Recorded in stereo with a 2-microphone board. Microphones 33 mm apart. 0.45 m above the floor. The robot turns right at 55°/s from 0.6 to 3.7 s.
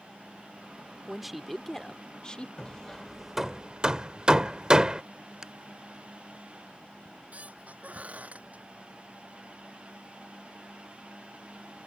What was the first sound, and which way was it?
A man speaking, 15° right.